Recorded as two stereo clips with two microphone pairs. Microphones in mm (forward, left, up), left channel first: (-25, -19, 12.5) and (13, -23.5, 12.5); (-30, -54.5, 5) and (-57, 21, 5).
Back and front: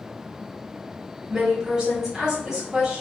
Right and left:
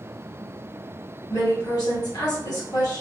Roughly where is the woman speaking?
Right.